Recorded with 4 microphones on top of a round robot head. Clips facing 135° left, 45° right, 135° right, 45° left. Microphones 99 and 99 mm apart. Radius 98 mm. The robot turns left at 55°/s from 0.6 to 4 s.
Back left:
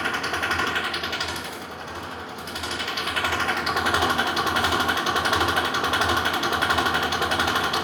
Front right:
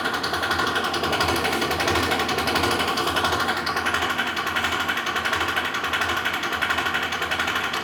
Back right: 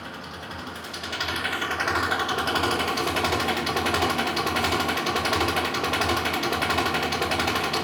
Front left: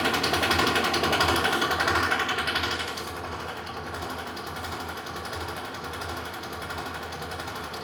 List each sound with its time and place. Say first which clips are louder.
0.0 s an engine running: front right 2 dB, front left 12 dB; 30° left, 1.4 m; by 7.8 s 155° right, 1.4 m